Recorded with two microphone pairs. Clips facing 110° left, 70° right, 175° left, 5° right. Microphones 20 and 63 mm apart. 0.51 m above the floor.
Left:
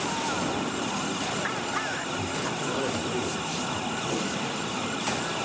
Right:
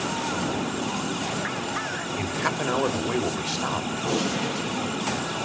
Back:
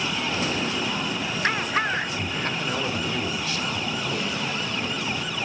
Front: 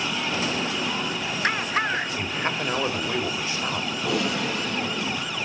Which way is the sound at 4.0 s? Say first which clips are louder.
Right 4 dB, front 3 dB; 15° right.